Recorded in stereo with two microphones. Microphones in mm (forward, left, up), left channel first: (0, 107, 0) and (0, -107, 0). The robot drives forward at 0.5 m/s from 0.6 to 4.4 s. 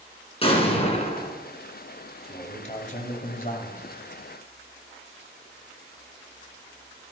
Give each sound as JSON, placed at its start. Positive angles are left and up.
{"t": 0.4, "sound": "an explosion", "side_deg": 30, "distance_m": 1.9}
{"t": 2.2, "sound": "a man speaking", "side_deg": 30, "distance_m": 2.0}